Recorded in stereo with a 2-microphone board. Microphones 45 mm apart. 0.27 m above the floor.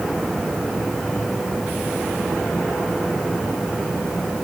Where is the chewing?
I don't hear chewing.